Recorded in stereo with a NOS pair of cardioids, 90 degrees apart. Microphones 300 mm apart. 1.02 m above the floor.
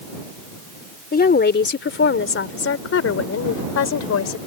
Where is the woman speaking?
30° left; by 4.4 s 60° left.